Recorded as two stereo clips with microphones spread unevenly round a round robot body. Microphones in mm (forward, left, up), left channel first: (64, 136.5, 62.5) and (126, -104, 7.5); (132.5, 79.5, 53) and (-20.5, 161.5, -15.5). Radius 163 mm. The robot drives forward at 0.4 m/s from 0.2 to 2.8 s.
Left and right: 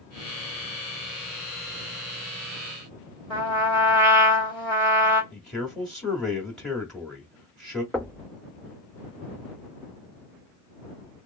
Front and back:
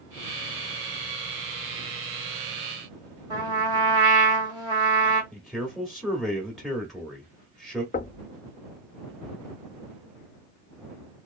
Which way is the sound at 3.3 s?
175° right.